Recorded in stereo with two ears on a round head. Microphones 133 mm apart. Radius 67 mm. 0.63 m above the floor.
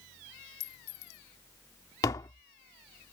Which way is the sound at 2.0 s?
25° left (ahead or behind).